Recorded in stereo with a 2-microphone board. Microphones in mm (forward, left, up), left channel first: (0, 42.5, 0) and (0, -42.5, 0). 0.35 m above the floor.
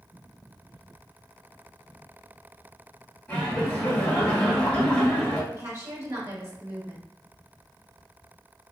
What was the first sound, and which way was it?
Laughter, 20° left (ahead or behind).